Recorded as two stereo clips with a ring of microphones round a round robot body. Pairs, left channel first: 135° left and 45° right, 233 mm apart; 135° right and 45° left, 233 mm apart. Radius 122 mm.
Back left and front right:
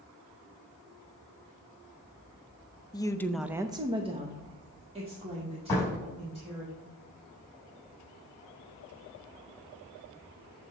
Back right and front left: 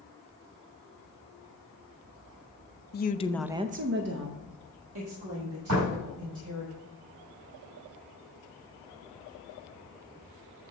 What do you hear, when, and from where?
2.9 s a woman speaking: 155° right, 0.7 m; by 6.7 s 20° left, 3.5 m
5.7 s a door slam: 60° left, 4 m